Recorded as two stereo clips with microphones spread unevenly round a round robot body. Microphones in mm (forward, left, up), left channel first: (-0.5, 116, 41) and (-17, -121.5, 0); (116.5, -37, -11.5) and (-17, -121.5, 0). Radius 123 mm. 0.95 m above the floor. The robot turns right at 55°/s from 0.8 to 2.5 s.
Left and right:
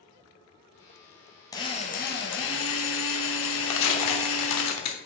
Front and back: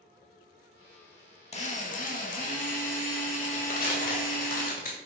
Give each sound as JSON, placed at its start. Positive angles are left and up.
{"t": 1.5, "sound": "a drill", "azimuth_deg": 5, "distance_m": 1.3}
{"t": 3.7, "sound": "tearing paper", "azimuth_deg": 80, "distance_m": 1.1}